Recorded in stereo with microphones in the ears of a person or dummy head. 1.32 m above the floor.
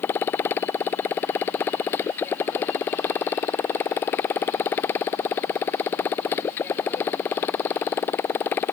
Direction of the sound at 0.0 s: 10° left (ahead or behind).